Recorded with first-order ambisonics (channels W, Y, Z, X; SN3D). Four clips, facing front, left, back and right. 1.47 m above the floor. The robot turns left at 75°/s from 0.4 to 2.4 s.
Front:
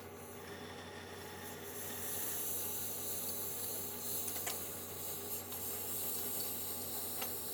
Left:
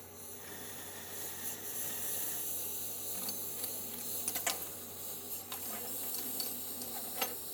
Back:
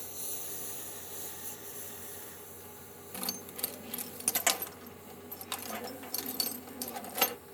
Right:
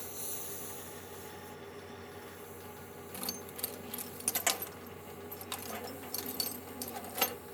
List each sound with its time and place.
0.0 s a lawn mower: 150° right; by 7.5 s 40° left
3.1 s keys jangling: 160° right